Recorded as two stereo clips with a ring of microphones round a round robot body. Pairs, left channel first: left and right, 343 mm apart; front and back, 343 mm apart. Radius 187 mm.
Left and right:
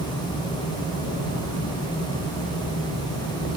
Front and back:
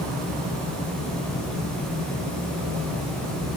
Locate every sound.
Only background noise.